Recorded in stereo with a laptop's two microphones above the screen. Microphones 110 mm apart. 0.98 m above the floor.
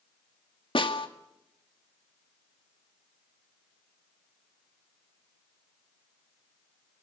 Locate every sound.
0.8 s a snare drum: 50° left (ahead or behind), 2 m